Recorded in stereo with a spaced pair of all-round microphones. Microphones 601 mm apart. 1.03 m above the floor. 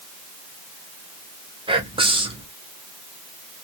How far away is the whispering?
About 0.8 m.